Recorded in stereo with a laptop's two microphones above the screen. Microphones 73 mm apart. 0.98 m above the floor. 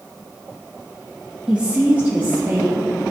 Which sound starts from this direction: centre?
A woman speaking, at 1.5 s.